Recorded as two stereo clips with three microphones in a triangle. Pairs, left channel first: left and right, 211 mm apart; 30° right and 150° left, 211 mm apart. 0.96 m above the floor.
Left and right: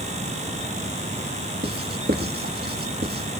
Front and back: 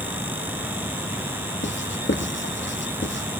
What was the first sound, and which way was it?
Writing, 50° right.